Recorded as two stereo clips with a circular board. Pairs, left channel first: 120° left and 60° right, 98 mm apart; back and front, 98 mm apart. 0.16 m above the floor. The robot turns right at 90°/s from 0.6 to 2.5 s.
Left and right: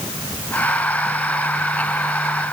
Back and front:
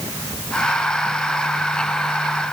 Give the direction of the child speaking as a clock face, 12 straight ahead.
No child speaking in this recording.